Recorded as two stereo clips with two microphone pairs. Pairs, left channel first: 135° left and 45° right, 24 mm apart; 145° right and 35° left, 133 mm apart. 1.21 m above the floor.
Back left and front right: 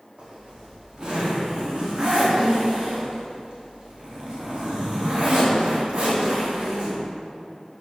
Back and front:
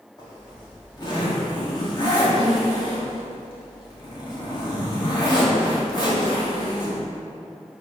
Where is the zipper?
90° right, 2.0 m.